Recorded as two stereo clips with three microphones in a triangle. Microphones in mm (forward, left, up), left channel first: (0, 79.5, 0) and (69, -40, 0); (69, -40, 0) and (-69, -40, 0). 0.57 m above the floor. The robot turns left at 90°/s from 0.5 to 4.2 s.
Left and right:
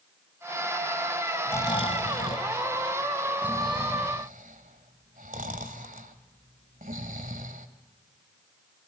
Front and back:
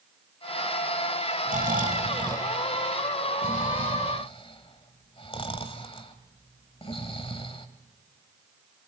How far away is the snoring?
About 1.9 m.